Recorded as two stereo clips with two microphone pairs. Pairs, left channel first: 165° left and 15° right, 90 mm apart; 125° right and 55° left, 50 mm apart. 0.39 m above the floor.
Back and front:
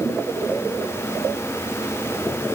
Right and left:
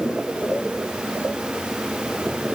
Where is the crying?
I don't hear crying.